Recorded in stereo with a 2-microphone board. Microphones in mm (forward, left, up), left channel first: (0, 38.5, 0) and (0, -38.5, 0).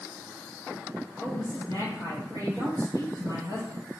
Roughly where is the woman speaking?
Left.